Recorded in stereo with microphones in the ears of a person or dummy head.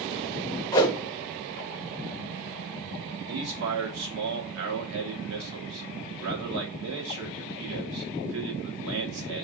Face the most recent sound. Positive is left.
turn(degrees=-75)  # may be behind; listen again after turning